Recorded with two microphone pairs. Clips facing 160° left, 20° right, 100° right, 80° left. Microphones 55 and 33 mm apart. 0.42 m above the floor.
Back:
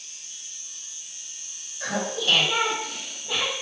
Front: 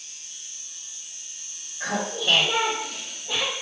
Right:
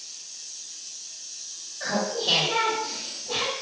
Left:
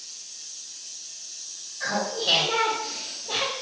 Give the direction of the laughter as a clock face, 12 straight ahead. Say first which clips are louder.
Even, even; 11 o'clock.